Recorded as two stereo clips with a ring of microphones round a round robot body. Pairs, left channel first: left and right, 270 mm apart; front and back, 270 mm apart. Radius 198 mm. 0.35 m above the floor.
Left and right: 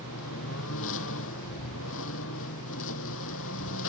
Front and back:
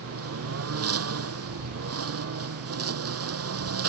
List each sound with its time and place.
0.0 s a lawn mower: 150° left